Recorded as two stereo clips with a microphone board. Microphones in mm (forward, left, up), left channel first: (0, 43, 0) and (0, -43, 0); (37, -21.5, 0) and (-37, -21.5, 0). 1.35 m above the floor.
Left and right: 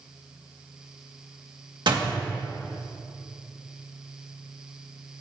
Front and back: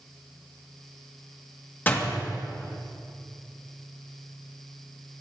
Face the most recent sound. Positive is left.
turn(degrees=-65)